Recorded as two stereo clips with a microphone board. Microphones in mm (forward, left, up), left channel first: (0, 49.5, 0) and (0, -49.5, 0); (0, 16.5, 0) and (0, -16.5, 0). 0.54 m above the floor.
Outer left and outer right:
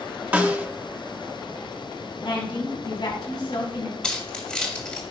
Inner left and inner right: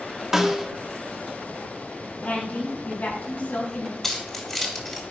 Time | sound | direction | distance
0.3 | a snare drum | 15° right (ahead or behind) | 0.7 m
2.2 | a woman speaking | 60° left (ahead or behind) | 4 m
4.0 | keys jangling | 10° left (ahead or behind) | 1.9 m